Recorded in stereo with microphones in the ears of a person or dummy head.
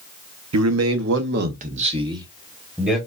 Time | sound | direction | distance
0.5 | a man speaking | 80° right | 0.8 m